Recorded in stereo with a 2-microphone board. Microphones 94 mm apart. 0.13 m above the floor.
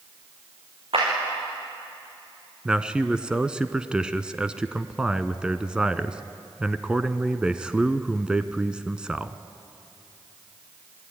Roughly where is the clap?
Right.